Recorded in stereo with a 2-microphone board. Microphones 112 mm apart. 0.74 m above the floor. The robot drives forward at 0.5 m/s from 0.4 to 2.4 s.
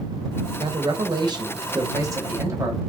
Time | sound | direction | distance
0.6 | a man speaking | 45° right (ahead or behind) | 0.9 m